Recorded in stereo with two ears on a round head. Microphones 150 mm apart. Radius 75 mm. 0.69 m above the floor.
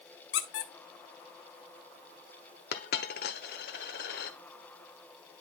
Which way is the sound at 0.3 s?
65° left (ahead or behind).